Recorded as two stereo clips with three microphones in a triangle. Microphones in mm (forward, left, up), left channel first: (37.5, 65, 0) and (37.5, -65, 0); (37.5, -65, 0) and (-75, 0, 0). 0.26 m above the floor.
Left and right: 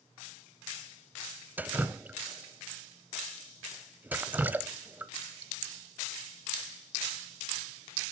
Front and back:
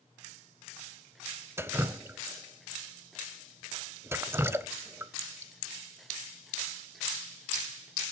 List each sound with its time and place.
1.6 s dripping: 155° right, 0.6 m